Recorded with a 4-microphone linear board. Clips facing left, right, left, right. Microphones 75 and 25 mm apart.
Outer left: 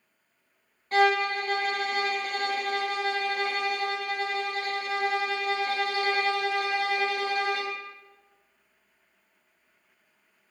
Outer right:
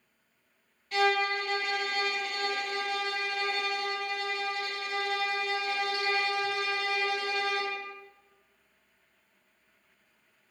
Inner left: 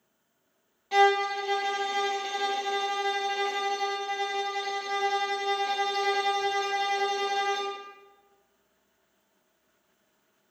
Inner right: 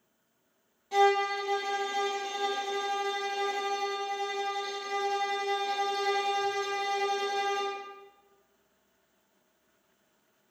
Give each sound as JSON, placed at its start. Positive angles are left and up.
{"t": 0.9, "sound": "a violin", "side_deg": 40, "distance_m": 1.3}